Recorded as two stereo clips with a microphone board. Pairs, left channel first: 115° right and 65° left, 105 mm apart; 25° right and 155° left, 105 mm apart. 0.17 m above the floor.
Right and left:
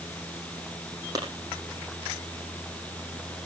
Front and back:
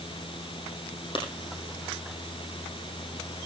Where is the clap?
10° left, 5.5 m.